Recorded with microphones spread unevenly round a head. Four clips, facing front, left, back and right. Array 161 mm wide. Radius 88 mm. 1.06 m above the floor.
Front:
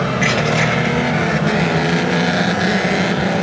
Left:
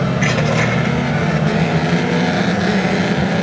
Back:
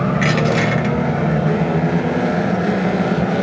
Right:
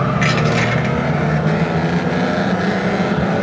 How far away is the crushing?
About 1.3 m.